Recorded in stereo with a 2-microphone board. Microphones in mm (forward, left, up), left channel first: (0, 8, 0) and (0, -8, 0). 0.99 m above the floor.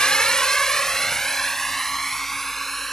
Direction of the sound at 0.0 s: 60° left (ahead or behind).